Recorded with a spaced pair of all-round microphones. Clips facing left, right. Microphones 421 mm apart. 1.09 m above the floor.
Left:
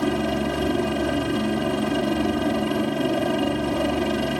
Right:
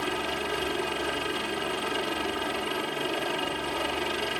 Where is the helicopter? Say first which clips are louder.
Left 10 dB; 65° left (ahead or behind).